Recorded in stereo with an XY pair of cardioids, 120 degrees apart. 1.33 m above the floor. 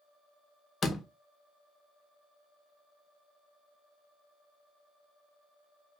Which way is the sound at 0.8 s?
35° left.